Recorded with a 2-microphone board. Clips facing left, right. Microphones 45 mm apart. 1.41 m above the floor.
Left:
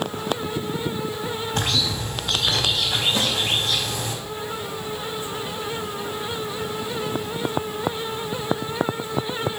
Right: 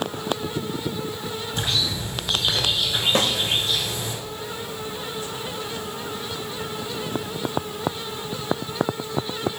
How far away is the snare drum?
About 1.9 m.